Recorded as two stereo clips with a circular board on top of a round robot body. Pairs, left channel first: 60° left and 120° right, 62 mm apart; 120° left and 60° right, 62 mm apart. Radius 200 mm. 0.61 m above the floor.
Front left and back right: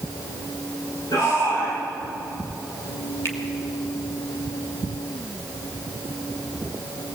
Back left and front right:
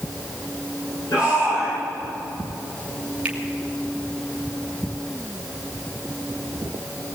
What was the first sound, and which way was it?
A shout, 85° left.